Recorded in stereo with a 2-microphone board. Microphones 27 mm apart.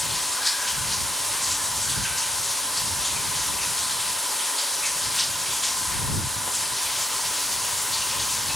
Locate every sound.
0.0 s running water: centre (ahead or behind)